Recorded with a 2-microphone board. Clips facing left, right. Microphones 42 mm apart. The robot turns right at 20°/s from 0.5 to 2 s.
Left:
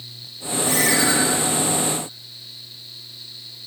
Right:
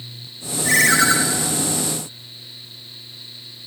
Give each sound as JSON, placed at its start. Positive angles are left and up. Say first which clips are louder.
{"t": 0.7, "sound": "a ringtone", "louder": "right 5 dB", "side_deg": -60, "distance_m": 1.6}